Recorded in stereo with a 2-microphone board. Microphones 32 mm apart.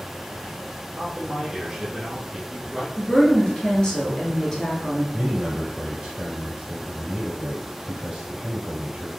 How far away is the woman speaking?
About 1.8 m.